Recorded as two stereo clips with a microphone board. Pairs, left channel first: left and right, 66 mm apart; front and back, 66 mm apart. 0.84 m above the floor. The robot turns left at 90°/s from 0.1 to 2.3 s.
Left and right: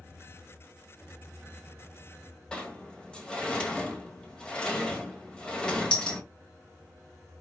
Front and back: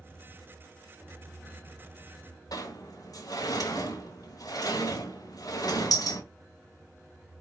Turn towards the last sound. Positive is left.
turn(degrees=15)